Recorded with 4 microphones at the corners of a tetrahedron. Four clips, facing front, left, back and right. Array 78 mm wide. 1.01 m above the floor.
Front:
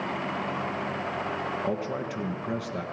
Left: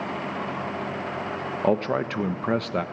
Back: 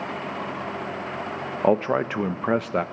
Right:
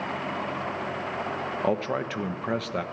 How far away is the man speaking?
About 0.9 m.